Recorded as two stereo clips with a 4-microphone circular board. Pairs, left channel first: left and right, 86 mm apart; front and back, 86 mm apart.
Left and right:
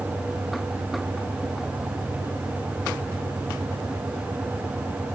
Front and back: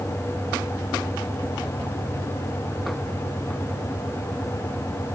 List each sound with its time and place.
Only background noise.